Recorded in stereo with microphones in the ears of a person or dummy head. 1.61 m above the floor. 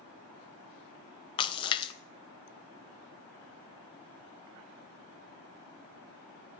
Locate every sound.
1.4 s a splash: 25° left (ahead or behind), 0.7 m